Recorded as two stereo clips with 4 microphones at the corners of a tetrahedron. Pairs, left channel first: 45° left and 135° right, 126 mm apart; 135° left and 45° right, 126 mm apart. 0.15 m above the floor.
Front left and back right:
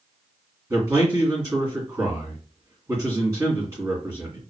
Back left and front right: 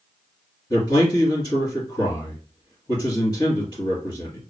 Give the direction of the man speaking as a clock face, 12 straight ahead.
6 o'clock.